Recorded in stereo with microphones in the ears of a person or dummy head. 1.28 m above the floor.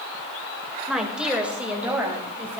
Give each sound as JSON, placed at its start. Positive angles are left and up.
{"t": 0.9, "sound": "a woman speaking", "side_deg": 0, "distance_m": 1.8}